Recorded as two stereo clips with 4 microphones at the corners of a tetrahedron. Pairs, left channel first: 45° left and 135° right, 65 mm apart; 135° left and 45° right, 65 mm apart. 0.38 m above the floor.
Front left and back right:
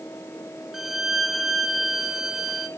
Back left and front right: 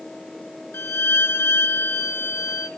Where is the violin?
145° left, 1.2 m.